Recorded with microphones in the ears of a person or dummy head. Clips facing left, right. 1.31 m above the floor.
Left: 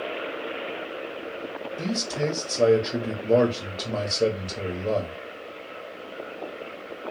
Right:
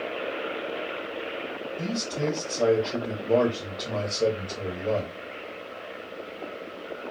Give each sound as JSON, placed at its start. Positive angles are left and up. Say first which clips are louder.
{"t": 1.8, "sound": "a man speaking", "louder": "left 2 dB", "side_deg": 25, "distance_m": 0.7}